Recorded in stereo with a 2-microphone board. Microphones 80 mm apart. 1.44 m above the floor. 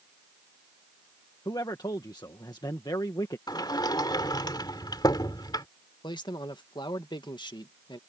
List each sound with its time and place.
1.4 s a man speaking: 60° left (ahead or behind)
3.5 s a sliding door: 60° left (ahead or behind)
6.0 s a man speaking: 75° left (ahead or behind)